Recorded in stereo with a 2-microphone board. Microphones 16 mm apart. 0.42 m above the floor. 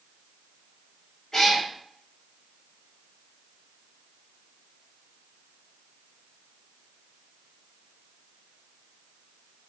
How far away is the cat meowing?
About 1.9 m.